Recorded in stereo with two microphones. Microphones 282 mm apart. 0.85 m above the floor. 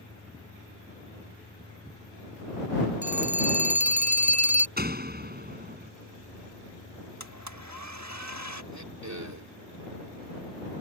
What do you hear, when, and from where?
3.0 s a phone ringing: 80° left
4.8 s a door slam: 35° right (ahead or behind)
7.2 s a blender: 75° right (ahead or behind)
8.7 s throat clearing: 80° right